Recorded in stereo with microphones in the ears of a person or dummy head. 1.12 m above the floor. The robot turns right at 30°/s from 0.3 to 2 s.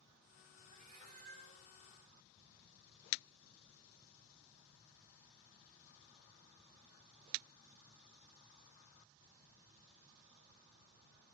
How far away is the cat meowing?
About 1.3 m.